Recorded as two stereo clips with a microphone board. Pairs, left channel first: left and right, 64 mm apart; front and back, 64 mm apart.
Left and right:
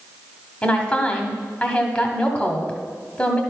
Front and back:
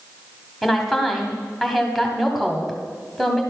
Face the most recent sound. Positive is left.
turn(degrees=85)